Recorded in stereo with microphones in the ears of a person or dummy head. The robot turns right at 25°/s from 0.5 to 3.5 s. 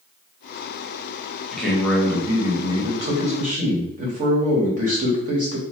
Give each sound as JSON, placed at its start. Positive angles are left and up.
{"t": 1.5, "sound": "a man speaking", "azimuth_deg": 170, "distance_m": 1.5}